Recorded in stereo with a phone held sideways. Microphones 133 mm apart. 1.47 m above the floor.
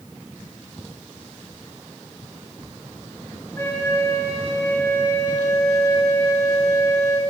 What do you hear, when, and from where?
3.6 s a flute: 20° left (ahead or behind), 6.5 m